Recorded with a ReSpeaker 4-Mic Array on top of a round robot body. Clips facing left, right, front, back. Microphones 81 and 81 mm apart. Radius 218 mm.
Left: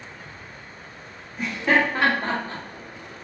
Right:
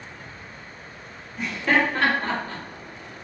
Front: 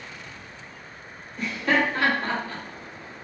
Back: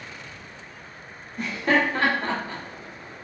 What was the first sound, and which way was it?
Laughter, 170° left.